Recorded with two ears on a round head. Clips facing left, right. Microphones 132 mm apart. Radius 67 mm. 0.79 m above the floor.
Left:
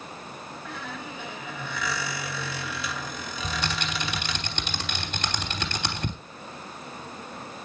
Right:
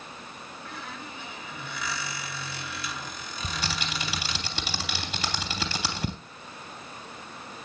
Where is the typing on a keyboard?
5° right (ahead or behind), 3 m.